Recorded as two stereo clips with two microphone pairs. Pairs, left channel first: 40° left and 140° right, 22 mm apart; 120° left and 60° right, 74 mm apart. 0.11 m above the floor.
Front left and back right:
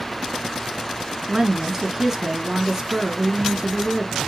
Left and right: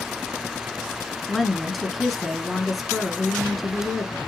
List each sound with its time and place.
1.3 s a woman speaking: 150° right, 1.1 m